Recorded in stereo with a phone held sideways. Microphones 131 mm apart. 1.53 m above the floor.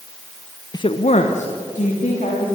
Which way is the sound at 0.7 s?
30° left (ahead or behind).